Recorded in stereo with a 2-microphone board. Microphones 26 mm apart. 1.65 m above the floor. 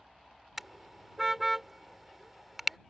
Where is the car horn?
5° right (ahead or behind).